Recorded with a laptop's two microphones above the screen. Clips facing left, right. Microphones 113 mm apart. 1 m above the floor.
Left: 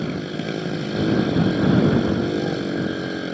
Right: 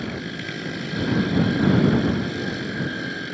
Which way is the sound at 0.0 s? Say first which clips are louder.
Left 4 dB; 40° left (ahead or behind).